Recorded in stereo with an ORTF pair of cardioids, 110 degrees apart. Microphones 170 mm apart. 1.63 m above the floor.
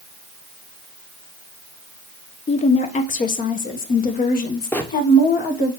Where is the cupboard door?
I don't hear a cupboard door.